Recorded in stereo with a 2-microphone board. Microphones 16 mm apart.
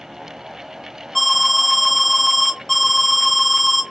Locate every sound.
1.1 s an alarm: 5° left (ahead or behind), 2.5 m